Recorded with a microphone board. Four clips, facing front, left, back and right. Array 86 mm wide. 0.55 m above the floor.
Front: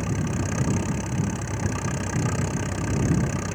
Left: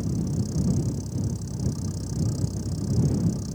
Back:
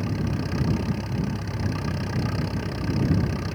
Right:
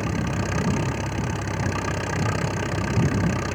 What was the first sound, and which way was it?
An engine running, 80° right.